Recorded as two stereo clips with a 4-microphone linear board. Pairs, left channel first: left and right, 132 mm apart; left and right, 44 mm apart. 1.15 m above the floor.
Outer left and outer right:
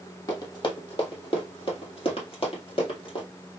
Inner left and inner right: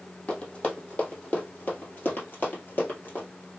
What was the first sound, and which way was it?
Running footsteps, 30° left (ahead or behind).